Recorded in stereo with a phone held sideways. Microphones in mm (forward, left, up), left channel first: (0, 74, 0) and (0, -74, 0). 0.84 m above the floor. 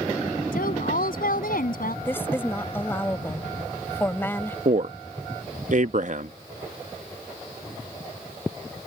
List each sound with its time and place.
0.5 s a woman speaking: 75° left (ahead or behind)
2.0 s a woman speaking: 15° left (ahead or behind)
4.7 s a man speaking: 55° right (ahead or behind)